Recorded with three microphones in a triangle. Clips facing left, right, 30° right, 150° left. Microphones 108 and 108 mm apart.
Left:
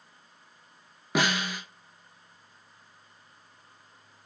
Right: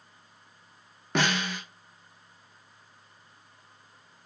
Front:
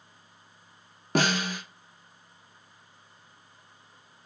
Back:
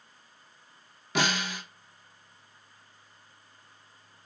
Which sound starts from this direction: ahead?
A snare drum, at 1.1 s.